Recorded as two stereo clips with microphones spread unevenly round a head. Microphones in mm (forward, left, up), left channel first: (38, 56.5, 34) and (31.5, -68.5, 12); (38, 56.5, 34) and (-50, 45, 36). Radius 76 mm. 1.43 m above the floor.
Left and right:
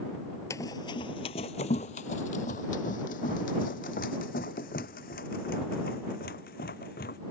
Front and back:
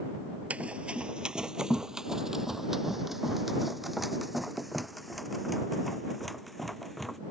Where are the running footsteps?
125° left; by 7.2 s 95° left.